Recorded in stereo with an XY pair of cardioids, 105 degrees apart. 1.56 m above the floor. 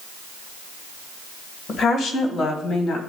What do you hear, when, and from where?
1.7 s a woman speaking: 45° left, 1.7 m